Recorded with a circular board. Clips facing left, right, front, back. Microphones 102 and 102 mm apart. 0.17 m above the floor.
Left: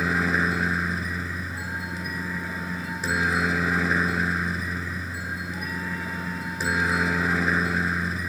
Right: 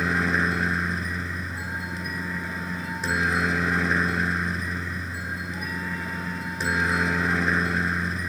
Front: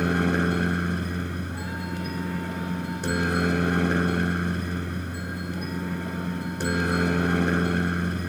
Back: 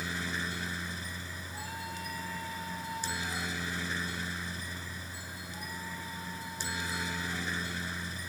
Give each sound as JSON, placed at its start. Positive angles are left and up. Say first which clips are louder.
{"t": 0.0, "sound": "a helicopter", "louder": "even, front 14 dB", "azimuth_deg": 0}